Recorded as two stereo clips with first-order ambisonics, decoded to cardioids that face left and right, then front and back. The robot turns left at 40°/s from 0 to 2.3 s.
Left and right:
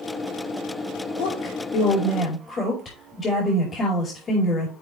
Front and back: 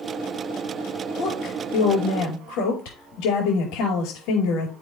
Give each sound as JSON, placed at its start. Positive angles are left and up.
{"t": 1.2, "sound": "a woman speaking", "azimuth_deg": 65, "distance_m": 5.0}